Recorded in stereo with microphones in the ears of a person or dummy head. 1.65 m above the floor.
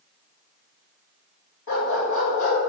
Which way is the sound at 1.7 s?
65° left (ahead or behind).